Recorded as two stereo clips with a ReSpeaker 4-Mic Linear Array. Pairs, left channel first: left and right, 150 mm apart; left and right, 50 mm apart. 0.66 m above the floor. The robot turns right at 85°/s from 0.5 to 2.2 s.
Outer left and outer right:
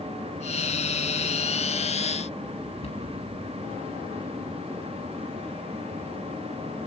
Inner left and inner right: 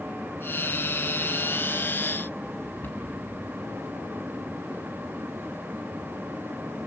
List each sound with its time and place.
2.8 s a cupboard door: 45° left (ahead or behind), 4.5 m